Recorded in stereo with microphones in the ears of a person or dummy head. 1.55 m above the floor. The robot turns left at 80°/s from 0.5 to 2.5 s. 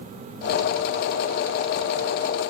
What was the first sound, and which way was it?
Only background noise.